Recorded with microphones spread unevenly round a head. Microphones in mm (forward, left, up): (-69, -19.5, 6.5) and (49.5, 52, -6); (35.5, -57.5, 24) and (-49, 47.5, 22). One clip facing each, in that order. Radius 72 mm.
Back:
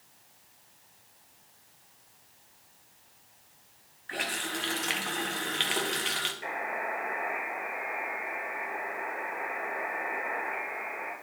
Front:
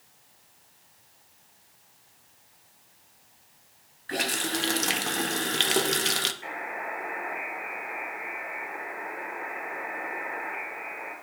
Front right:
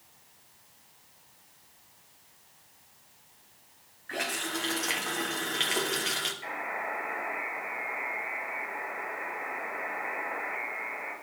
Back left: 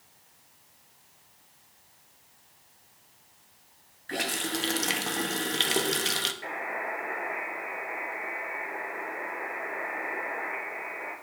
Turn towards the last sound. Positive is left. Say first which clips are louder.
# back 1 dB, even
turn(degrees=170)